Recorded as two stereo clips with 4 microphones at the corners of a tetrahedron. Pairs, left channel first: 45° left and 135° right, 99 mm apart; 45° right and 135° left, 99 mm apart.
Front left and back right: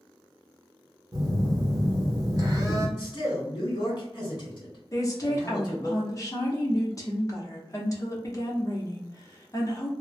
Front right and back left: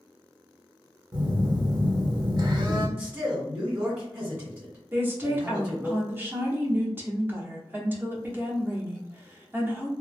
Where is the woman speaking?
80° left, 0.9 m.